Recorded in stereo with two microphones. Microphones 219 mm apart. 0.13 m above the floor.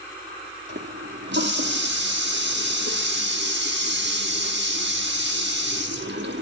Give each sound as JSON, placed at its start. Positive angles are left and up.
{"t": 0.7, "sound": "a running tap", "side_deg": -55, "distance_m": 3.5}